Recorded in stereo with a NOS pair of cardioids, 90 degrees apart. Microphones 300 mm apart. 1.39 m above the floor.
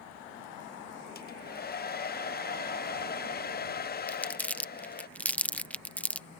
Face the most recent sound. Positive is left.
turn(degrees=5)